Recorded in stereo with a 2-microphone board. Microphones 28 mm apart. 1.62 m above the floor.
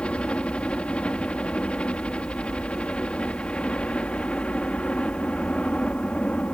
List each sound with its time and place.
0.0 s a helicopter: 40° left (ahead or behind)